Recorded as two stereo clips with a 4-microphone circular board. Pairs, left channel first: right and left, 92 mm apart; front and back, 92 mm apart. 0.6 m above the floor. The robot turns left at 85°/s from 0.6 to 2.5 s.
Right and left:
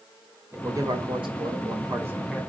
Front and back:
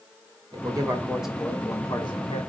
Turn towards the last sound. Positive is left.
turn(degrees=-10)